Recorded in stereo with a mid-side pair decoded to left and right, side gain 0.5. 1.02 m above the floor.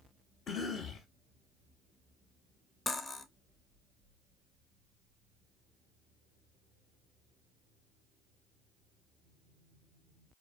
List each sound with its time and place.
0.5 s a cough: 60° left, 0.7 m
2.9 s cutlery clinking: 25° left, 0.7 m